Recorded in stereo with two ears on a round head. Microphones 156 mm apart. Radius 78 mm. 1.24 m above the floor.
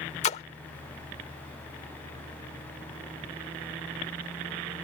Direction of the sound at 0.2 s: 40° left (ahead or behind).